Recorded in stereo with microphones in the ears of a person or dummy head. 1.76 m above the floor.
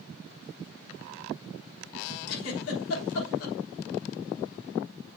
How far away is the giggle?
About 6 m.